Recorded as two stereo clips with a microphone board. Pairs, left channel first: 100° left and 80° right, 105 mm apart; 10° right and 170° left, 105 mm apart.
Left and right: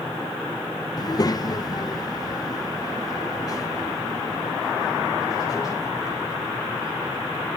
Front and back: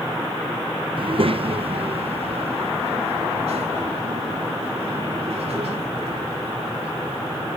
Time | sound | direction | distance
1.0 | a child speaking | 150° left | 0.8 m